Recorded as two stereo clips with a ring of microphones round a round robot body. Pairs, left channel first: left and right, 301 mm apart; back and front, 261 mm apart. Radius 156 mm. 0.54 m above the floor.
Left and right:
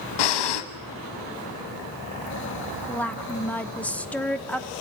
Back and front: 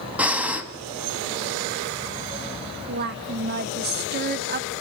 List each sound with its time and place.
0.2 s breathing: 85° left, 1.3 m
2.9 s a woman speaking: 5° left, 1.0 m